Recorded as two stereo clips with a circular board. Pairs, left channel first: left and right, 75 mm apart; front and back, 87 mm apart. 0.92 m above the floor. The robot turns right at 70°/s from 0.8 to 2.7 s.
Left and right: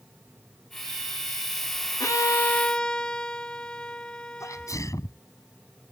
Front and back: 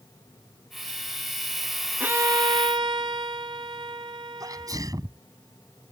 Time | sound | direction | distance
2.0 | a violin | 115° left | ?
4.4 | a sneeze | 135° left | ?